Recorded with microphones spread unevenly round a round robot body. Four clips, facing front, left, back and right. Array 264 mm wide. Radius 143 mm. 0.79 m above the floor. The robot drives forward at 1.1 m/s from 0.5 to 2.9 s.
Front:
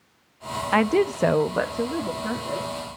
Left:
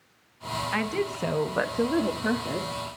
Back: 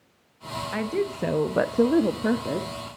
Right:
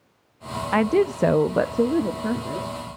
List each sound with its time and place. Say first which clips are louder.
0.7 s a woman speaking: right 11 dB, front 7 dB; 25° right, 0.9 m; by 2.8 s 165° right, 1.6 m